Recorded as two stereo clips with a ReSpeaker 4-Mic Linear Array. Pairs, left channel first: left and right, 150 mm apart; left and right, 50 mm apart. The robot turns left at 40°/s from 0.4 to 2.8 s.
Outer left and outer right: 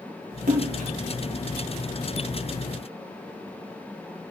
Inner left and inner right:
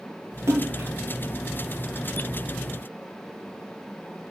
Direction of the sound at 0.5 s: 70° right (ahead or behind).